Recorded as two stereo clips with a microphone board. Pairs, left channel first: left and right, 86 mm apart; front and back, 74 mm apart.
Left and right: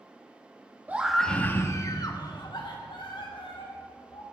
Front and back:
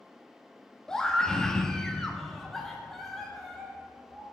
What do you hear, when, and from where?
0.9 s a scream: 70° right, 0.9 m; by 4.2 s 90° left, 3 m